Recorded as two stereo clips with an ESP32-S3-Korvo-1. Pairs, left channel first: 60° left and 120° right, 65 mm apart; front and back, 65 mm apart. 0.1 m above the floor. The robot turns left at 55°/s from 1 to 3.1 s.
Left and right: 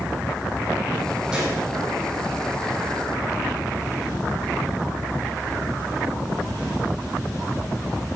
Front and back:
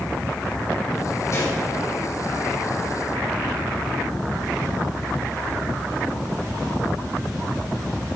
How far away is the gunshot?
About 4 m.